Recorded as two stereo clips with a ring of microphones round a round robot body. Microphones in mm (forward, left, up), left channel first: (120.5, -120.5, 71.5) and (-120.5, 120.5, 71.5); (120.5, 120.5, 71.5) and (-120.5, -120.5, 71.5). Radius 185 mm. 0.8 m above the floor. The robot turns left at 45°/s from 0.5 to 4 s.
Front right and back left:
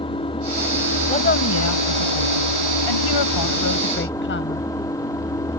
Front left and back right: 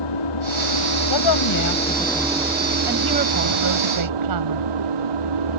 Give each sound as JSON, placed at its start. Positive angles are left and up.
{"t": 0.0, "sound": "an engine running", "azimuth_deg": 30}
{"t": 1.1, "sound": "a woman speaking", "azimuth_deg": 30}